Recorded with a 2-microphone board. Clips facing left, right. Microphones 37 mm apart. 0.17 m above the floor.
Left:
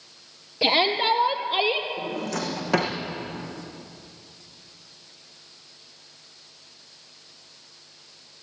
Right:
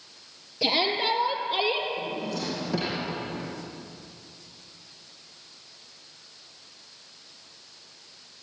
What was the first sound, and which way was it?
A shout, 25° left (ahead or behind).